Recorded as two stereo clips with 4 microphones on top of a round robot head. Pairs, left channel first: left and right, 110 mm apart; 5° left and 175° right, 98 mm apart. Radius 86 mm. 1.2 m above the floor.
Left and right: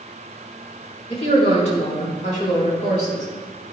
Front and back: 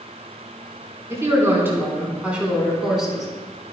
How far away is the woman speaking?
About 4 m.